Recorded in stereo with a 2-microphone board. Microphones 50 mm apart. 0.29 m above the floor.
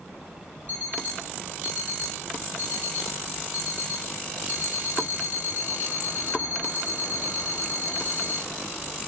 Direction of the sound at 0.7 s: 40° right (ahead or behind).